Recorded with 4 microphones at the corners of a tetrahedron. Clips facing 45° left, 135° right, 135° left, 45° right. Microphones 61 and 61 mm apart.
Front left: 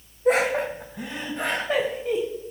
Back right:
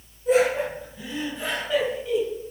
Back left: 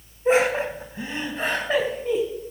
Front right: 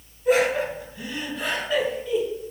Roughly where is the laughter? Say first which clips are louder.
Back right 1 dB, back left 1 dB; left.